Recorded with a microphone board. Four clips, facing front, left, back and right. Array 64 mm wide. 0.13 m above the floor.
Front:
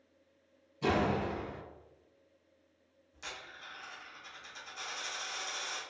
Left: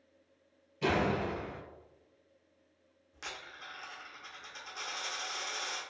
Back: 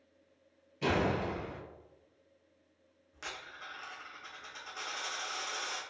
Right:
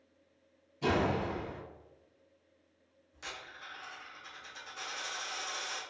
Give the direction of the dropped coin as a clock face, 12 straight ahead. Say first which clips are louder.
Even, back 2 dB; 7 o'clock.